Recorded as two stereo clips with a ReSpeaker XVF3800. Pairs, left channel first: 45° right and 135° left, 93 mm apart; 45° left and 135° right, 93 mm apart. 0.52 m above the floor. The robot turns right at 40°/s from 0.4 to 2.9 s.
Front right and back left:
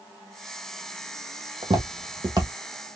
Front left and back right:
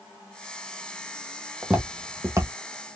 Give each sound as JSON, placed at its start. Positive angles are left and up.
{"t": 1.6, "sound": "footsteps", "azimuth_deg": 140, "distance_m": 1.2}